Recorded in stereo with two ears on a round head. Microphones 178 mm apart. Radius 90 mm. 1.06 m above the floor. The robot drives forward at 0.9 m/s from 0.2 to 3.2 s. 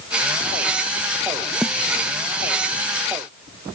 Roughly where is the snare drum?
Centre.